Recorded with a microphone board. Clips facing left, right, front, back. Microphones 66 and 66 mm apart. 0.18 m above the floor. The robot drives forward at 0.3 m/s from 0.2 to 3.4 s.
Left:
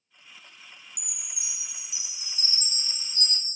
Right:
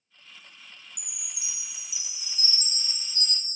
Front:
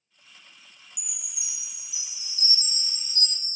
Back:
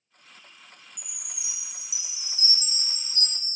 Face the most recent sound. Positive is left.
turn(degrees=130)